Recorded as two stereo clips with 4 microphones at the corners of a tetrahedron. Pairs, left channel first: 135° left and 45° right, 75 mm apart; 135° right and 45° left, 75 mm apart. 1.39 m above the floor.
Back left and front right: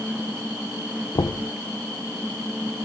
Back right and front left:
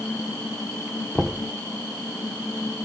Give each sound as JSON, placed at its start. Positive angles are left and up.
{"t": 1.1, "sound": "knocking", "azimuth_deg": 130, "distance_m": 0.6}